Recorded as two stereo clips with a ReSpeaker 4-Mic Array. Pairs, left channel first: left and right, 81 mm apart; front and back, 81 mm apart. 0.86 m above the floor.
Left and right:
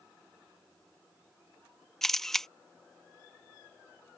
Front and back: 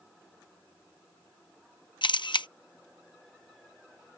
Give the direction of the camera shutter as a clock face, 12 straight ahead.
12 o'clock.